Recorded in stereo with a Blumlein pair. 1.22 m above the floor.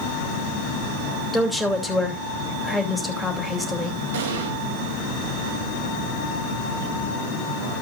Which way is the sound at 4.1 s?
60° right.